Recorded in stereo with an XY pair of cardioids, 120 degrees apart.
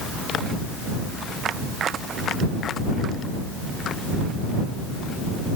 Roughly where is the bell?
I don't hear a bell.